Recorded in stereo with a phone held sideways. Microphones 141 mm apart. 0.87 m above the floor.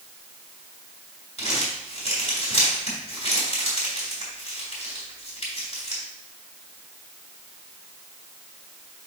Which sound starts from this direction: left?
Crumpling, at 1.4 s.